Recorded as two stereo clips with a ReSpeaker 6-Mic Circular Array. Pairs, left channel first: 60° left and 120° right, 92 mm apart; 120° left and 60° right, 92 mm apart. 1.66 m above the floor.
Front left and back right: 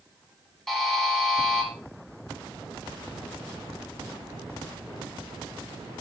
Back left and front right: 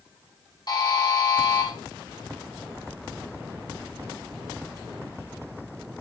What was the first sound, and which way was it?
A buzzer, 150° left.